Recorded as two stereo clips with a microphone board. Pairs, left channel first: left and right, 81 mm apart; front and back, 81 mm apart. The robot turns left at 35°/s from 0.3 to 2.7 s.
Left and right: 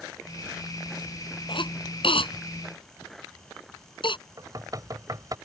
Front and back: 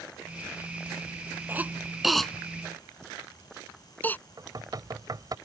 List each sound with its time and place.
1.5 s a cough: 115° left; by 4.2 s 70° left
4.4 s knocking: 135° right